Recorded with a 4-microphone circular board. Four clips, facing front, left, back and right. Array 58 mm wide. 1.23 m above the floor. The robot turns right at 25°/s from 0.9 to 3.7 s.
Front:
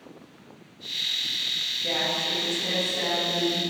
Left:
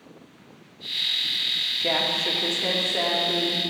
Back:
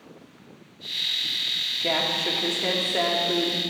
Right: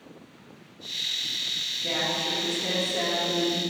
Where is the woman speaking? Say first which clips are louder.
Left 3 dB, back 3 dB; 130° left, 1.6 m; by 3.6 s 175° left, 1.6 m.